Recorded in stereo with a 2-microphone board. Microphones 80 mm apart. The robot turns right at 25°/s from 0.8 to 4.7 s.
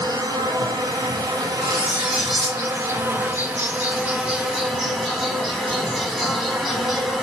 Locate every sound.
0.0 s an insect: 95° right, 1.4 m; by 7.2 s 5° left, 1.4 m
1.6 s cutlery clinking: 20° right (ahead or behind), 1.2 m; by 2.6 s 5° left (ahead or behind), 1.2 m